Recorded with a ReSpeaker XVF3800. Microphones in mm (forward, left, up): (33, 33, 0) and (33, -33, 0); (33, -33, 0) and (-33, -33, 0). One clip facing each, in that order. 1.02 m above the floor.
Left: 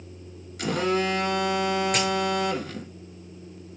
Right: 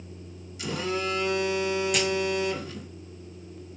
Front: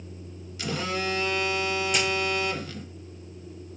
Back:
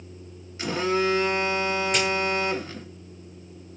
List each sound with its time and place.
0.6 s a phone buzzing: 120° left, 1.1 m
1.9 s a dropped coin: 130° left, 5.5 m